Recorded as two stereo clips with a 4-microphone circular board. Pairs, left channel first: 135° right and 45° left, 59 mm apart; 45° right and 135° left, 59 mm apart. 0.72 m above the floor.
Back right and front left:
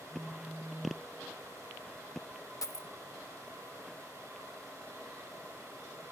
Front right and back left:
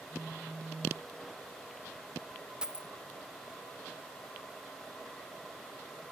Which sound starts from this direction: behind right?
A dropped coin, at 2.6 s.